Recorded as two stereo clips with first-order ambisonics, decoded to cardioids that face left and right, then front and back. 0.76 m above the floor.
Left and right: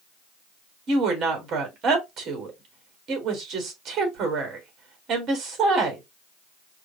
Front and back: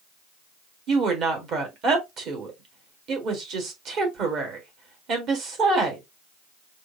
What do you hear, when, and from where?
0.9 s a woman speaking: 140° right, 1.7 m